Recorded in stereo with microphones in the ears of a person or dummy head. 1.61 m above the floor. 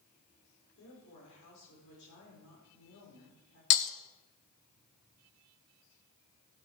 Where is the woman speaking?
75° left (ahead or behind), 5.5 m.